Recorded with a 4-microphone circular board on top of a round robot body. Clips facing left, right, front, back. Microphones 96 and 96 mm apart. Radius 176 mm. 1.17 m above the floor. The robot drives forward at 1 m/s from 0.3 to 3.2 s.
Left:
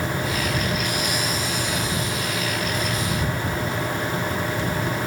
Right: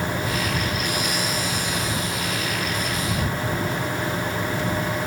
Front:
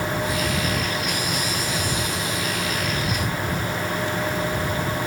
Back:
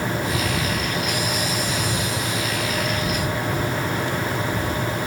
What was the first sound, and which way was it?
Only background noise.